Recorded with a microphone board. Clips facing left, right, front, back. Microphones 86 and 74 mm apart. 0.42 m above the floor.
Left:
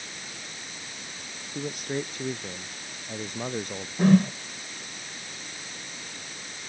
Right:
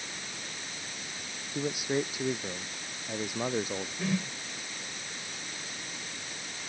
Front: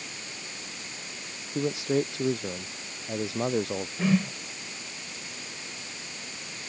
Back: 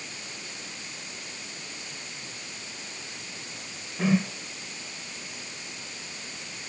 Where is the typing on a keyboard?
No typing on a keyboard in this recording.